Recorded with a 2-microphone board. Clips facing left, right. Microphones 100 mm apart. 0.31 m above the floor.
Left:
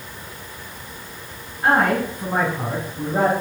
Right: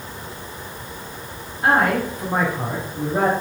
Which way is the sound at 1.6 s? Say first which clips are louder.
Even; centre (ahead or behind).